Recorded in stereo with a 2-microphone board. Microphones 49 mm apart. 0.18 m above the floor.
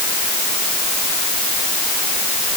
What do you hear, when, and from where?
Only background noise.